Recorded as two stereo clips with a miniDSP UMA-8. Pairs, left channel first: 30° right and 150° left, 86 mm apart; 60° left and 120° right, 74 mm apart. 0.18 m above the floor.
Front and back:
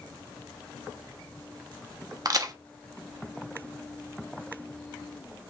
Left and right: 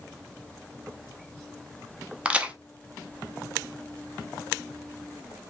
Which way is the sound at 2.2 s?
170° left.